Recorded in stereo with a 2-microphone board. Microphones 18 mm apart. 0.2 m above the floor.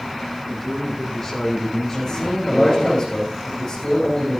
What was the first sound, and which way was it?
A man speaking, 20° left (ahead or behind).